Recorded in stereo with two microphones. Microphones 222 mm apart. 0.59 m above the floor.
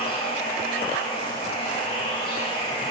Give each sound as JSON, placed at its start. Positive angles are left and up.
{"t": 0.0, "sound": "running water", "side_deg": 25, "distance_m": 0.7}